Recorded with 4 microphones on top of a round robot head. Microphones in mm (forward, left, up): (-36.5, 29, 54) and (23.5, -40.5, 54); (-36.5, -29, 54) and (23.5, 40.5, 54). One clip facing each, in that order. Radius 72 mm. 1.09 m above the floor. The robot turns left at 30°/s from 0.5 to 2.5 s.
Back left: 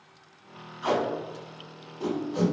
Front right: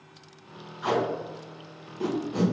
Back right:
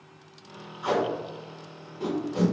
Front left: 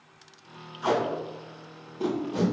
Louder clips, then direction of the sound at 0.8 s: Even, even; 30° left.